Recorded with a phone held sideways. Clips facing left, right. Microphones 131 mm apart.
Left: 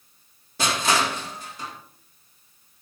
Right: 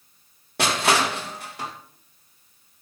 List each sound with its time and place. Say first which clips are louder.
0.6 s crushing: right 2 dB; 75° right (ahead or behind), 1.9 m